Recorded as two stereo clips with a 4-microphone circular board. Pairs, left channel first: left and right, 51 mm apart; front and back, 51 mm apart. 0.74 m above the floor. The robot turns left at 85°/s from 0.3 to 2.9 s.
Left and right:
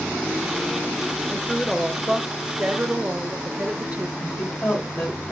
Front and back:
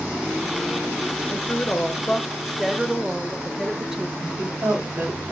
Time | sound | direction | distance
1.3 | a woman speaking | 30° left | 0.7 m
4.2 | a woman speaking | 145° left | 6 m